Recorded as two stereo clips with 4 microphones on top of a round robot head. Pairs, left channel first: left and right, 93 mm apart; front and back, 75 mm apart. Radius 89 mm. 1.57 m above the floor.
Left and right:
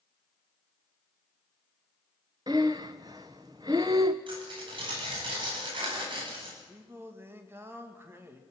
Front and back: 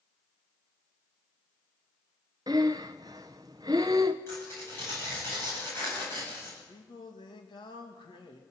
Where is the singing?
25° right, 2 m.